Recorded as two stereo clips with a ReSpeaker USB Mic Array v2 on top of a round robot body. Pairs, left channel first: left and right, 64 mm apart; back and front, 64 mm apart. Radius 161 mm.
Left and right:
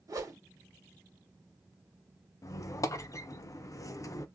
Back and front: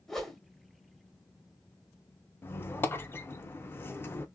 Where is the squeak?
125° left, 0.5 m.